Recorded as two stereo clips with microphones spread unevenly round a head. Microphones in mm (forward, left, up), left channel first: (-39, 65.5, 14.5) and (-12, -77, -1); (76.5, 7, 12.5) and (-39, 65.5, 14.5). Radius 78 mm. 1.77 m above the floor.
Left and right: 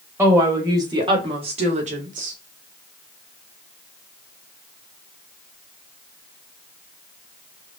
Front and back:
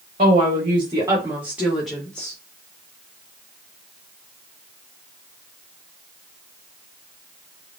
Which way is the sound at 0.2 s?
155° right.